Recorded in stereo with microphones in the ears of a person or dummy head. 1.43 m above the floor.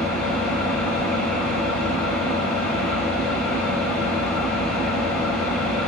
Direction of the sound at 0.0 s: 10° left (ahead or behind).